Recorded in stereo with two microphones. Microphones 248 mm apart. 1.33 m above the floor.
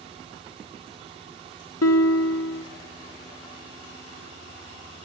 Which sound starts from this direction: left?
A guitar, at 1.8 s.